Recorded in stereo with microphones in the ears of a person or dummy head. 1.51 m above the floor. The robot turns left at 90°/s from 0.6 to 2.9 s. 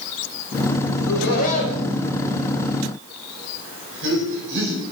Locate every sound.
0.9 s laughter: 75° left (ahead or behind), 5.5 m; by 4.8 s 75° right (ahead or behind), 5.5 m